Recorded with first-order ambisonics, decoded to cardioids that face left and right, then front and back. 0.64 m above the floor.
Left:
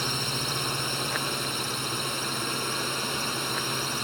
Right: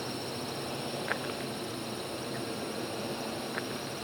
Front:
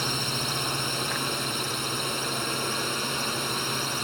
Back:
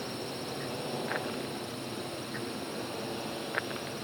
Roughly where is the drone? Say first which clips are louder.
Left 8 dB, front 10 dB; ahead left.